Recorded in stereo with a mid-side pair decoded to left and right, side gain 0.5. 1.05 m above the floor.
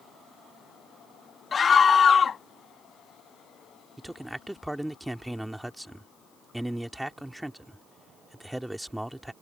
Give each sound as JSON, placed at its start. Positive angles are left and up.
{"t": 1.5, "sound": "a scream", "azimuth_deg": 35}
{"t": 4.0, "sound": "a man speaking", "azimuth_deg": -10}